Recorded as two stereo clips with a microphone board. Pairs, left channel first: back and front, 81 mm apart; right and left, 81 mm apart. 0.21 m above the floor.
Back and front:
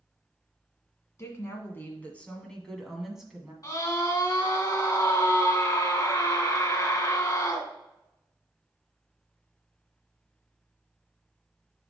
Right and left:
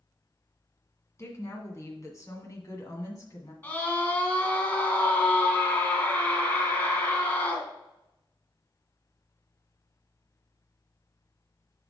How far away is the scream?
About 2.5 m.